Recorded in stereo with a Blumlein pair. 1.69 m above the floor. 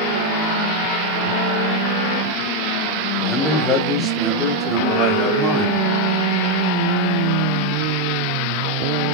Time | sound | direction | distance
3.2 | a man speaking | straight ahead | 1.3 m